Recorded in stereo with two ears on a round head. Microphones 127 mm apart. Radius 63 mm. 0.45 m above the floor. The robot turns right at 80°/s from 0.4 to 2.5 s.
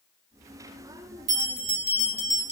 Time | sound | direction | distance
1.3 | a bell | 55° right | 1.7 m